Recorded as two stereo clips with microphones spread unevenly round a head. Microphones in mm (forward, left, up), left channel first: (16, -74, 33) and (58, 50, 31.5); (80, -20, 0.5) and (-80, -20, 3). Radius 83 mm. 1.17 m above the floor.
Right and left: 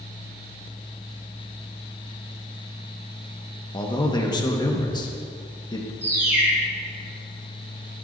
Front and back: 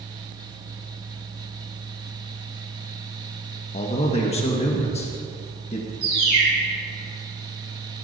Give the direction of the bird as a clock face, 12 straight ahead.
7 o'clock.